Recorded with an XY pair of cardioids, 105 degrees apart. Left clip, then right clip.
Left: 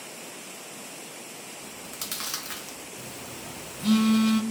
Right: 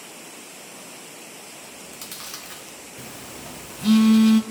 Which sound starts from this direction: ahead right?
A phone buzzing, at 3.0 s.